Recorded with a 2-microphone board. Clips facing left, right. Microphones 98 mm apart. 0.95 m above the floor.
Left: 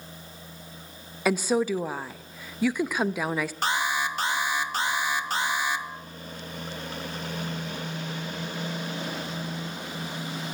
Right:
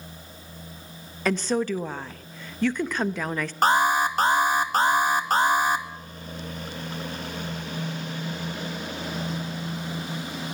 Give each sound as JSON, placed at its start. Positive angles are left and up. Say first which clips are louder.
{"t": 1.2, "sound": "a woman speaking", "louder": "left 1 dB", "side_deg": 10, "distance_m": 0.9}
{"t": 3.6, "sound": "an alarm", "louder": "right 10 dB", "side_deg": -45, "distance_m": 1.7}